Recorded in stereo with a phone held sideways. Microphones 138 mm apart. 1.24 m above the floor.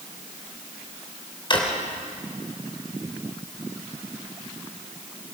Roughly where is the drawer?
Left.